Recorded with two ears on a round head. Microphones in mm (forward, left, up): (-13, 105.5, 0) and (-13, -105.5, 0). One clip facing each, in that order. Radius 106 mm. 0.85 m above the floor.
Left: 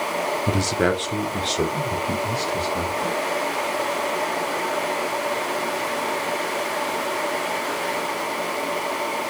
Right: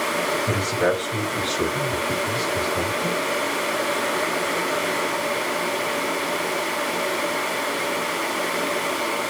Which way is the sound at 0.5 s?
50° left (ahead or behind).